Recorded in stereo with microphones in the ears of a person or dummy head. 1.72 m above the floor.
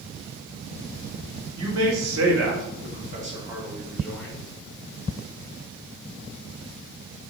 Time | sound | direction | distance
1.6 | a man speaking | 80° right | 1.6 m